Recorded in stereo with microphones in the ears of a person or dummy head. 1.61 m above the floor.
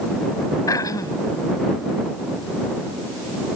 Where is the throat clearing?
20° left (ahead or behind).